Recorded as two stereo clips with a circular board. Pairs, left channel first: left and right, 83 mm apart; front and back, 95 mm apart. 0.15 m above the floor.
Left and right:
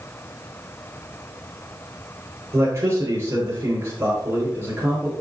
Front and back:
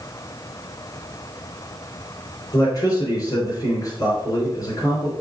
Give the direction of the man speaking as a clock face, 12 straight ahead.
1 o'clock.